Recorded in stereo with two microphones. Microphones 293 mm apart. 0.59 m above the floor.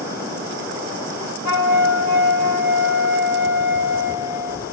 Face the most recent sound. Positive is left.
turn(degrees=80)